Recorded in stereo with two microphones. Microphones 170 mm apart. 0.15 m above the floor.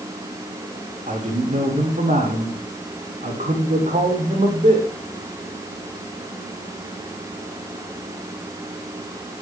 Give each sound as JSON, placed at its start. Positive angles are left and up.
{"t": 1.1, "sound": "a man speaking", "side_deg": -50, "distance_m": 9.0}